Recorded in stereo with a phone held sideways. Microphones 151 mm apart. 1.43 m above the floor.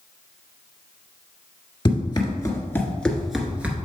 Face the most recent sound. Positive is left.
turn(degrees=-10)  # may be behind; listen again after turning